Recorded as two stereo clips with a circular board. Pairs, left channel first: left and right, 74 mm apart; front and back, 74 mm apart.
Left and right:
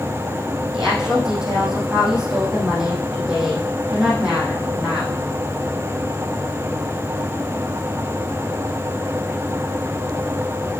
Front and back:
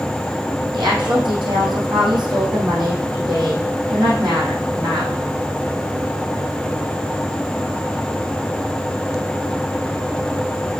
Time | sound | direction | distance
0.7 | a woman speaking | 170° right | 4 m